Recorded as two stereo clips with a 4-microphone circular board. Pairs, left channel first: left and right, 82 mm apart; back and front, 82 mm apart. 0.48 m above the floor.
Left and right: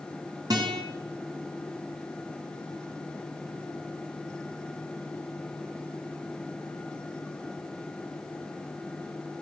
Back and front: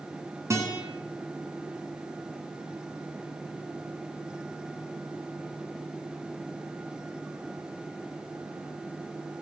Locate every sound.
0.5 s a guitar: 55° right, 3.5 m